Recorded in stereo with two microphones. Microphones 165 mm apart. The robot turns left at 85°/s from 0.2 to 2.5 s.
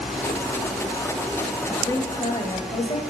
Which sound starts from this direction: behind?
A woman speaking, at 1.7 s.